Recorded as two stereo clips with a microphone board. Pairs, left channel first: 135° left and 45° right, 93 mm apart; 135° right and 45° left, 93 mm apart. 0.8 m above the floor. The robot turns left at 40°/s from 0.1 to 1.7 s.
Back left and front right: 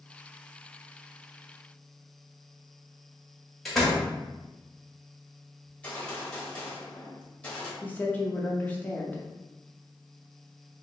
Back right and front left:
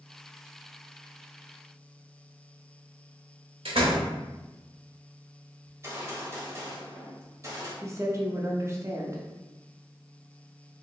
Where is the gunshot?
65° left, 1.1 m.